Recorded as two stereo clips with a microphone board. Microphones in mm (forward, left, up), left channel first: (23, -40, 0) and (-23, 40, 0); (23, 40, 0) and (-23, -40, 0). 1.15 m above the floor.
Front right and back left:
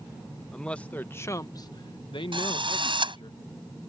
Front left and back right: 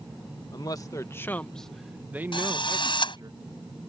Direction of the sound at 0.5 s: 20° left.